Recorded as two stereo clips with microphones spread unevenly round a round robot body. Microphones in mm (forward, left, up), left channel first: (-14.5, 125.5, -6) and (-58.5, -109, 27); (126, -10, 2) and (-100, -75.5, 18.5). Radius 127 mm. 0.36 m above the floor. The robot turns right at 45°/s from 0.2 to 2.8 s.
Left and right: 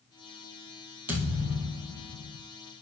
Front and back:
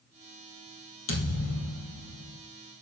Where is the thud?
20° right, 2.5 m; by 2.4 s 40° left, 2.5 m.